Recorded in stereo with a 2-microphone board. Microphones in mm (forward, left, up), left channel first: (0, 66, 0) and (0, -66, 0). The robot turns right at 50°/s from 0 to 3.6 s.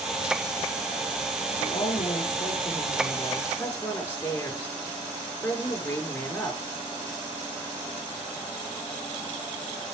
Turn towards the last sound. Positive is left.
turn(degrees=165)